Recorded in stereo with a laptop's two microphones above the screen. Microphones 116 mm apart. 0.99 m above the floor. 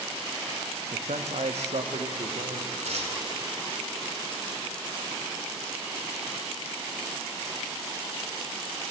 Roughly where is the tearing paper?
Right.